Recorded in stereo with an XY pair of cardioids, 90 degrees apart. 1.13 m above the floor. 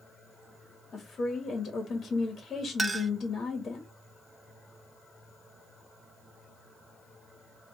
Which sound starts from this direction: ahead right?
A clink, at 2.8 s.